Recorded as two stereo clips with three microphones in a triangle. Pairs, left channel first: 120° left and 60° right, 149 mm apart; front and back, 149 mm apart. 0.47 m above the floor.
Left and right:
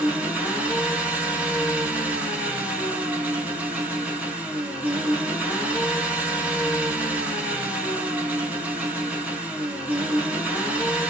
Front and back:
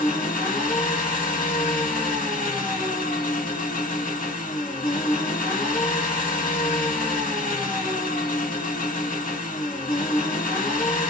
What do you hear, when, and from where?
0.0 s an engine running: 20° left, 1.3 m